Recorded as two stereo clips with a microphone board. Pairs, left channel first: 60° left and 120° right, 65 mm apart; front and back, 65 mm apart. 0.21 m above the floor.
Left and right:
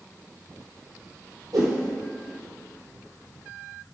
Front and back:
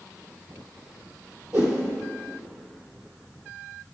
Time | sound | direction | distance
1.5 | a whoosh | 115° right | 2.5 m